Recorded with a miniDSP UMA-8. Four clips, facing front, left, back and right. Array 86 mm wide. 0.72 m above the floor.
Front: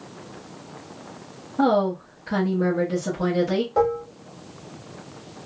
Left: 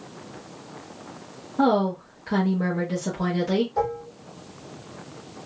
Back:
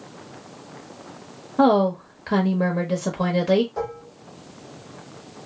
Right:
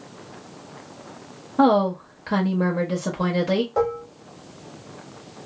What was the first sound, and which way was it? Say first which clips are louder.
A woman speaking: right 3 dB, back 3 dB; 140° right.